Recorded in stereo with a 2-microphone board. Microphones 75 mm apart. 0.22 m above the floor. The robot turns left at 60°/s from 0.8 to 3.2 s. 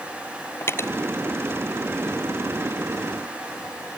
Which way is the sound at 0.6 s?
35° left (ahead or behind).